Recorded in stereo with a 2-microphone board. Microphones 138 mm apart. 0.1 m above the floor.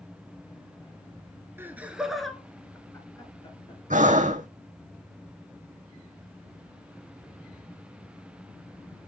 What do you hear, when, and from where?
1.6 s laughter: 15° right (ahead or behind), 1.2 m; by 3.8 s 40° left (ahead or behind), 1.4 m
3.9 s breathing: 65° right (ahead or behind), 1.0 m